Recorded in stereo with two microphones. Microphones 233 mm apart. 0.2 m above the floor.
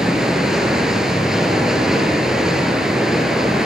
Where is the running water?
Centre (ahead or behind), 3 m.